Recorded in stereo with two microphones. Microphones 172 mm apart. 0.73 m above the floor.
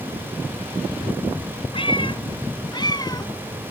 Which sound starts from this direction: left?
A cat meowing, at 1.7 s.